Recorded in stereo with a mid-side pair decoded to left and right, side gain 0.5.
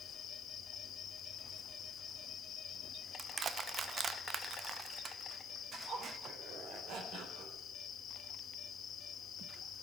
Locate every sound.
0.0 s an insect: 55° left, 1.7 m
3.2 s crushing: 40° right, 0.8 m
5.7 s a zipper: 70° right, 4 m